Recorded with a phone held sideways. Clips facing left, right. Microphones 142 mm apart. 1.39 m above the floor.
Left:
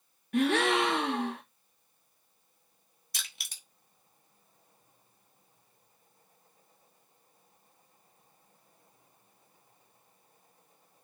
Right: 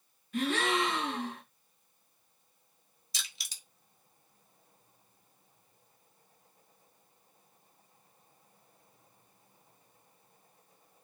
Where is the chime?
No chime in this recording.